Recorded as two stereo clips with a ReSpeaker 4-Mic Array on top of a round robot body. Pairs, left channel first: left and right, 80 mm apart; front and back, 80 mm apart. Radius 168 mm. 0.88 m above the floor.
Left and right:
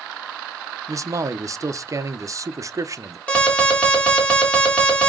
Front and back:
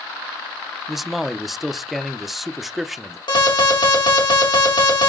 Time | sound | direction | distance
0.9 | a man speaking | 95° right | 0.9 m
3.3 | an alarm | 15° left | 3 m